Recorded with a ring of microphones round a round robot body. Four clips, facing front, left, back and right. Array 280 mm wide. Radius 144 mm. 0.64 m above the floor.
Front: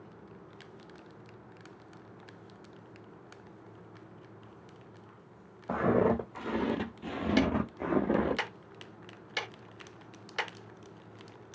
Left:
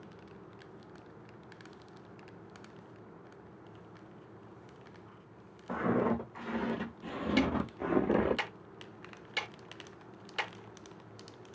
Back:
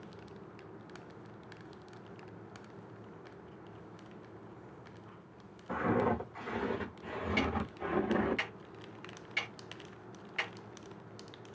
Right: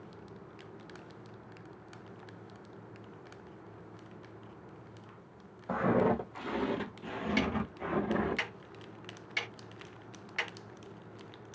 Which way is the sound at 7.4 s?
25° left.